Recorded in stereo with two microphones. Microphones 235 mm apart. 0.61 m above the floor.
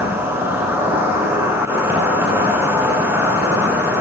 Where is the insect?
10° right (ahead or behind), 5.5 m.